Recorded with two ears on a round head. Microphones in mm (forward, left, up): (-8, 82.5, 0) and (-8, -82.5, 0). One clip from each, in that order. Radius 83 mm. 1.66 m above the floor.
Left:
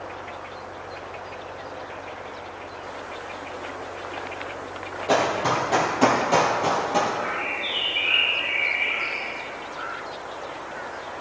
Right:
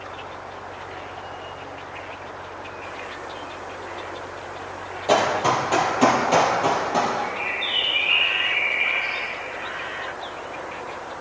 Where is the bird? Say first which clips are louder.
Right 1 dB; 55° right (ahead or behind), 3 m.